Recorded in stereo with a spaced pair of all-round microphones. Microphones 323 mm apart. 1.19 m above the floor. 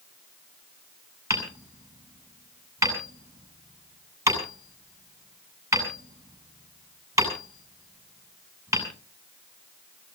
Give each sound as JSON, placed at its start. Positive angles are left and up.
{"t": 1.3, "sound": "hammering", "side_deg": -10, "distance_m": 7.5}